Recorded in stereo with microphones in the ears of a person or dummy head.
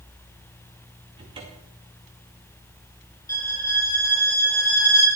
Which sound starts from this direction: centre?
A violin, at 3.3 s.